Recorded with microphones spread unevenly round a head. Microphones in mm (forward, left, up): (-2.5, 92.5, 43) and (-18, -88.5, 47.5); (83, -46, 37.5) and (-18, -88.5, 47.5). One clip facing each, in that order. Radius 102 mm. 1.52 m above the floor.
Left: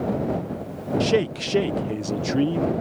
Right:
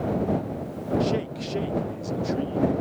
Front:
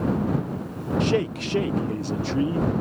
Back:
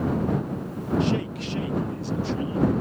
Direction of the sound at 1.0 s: 65° left.